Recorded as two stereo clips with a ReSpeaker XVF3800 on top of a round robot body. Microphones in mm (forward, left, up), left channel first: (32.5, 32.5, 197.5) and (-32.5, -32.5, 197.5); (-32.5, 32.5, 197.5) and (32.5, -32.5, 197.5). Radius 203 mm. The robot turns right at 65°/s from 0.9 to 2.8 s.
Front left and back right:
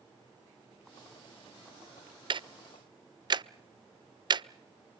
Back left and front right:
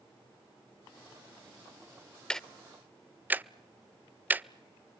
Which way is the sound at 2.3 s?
145° right.